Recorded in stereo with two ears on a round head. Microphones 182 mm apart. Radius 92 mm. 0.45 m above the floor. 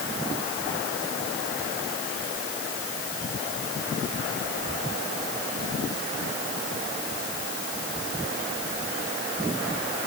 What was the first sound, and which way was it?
Only background noise.